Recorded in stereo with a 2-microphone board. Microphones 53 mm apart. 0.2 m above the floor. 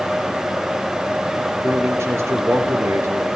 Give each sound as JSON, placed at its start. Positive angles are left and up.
{"t": 1.6, "sound": "a man speaking", "side_deg": -60, "distance_m": 3.0}